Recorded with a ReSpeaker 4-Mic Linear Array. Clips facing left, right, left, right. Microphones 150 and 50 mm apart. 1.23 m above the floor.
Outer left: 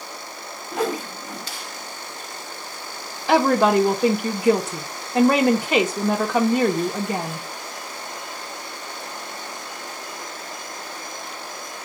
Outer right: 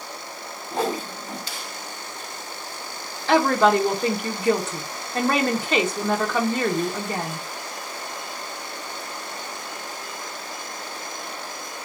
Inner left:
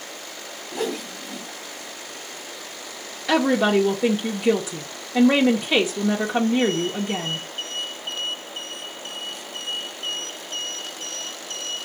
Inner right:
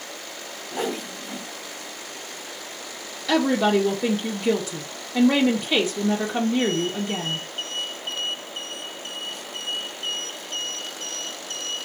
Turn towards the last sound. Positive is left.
turn(degrees=15)  # may be behind; listen again after turning